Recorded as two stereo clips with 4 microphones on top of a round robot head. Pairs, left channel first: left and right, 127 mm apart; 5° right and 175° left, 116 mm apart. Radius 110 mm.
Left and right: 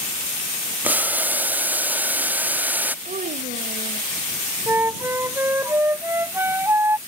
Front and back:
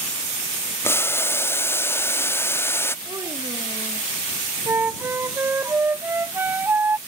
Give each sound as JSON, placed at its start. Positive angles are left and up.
{"t": 0.8, "sound": "boiling", "azimuth_deg": -35}
{"t": 3.0, "sound": "a child speaking", "azimuth_deg": -115}
{"t": 4.7, "sound": "a flute", "azimuth_deg": -140}